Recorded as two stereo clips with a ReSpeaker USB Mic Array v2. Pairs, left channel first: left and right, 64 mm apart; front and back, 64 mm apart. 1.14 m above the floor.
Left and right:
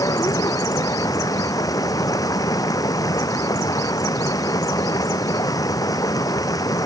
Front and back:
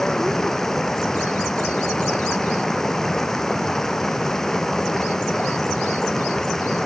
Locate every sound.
0.0 s running water: 80° left